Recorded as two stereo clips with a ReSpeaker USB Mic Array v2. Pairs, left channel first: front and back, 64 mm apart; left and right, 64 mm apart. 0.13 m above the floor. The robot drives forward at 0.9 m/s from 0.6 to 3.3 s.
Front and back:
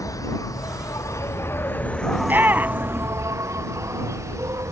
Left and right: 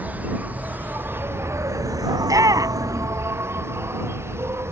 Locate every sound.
0.0 s an insect: 30° right; by 4.7 s 140° right
2.2 s a shout: 115° right; by 3.1 s 120° right